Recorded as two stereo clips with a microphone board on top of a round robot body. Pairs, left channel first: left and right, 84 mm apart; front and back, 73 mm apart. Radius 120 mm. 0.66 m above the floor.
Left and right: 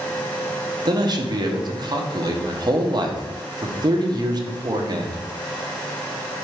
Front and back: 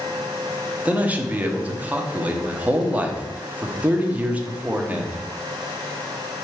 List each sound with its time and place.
0.8 s a man speaking: 115° right, 1.7 m